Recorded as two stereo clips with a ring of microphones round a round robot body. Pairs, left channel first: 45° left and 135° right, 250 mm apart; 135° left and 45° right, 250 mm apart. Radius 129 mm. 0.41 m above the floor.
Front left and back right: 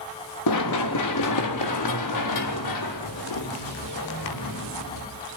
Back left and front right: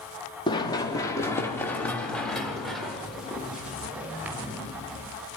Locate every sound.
0.5 s running footsteps: 60° left, 4.5 m; by 5.0 s 35° left, 8 m